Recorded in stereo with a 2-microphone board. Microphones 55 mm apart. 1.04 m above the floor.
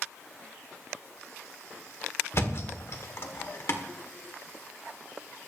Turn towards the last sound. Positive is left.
turn(degrees=50)  # may be behind; listen again after turning